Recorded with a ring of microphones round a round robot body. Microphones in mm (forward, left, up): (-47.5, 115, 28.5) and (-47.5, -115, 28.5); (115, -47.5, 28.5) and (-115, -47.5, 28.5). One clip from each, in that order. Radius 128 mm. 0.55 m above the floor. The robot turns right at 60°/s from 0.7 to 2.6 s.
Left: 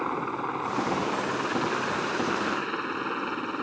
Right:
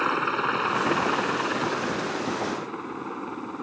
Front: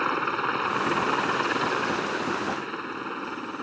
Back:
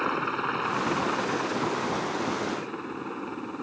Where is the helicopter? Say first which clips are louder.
Right 5 dB, front 2 dB; 60° right; by 3.6 s 55° left.